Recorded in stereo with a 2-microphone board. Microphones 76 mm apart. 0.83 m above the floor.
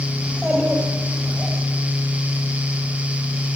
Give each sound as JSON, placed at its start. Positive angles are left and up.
{"t": 0.2, "sound": "a child speaking", "side_deg": -15, "distance_m": 3.5}